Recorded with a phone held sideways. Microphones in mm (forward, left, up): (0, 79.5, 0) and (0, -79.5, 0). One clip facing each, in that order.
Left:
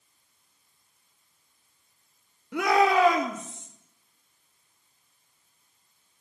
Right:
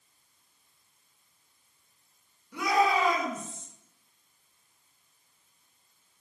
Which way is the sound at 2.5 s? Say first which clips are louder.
Left 4 dB; 75° left (ahead or behind).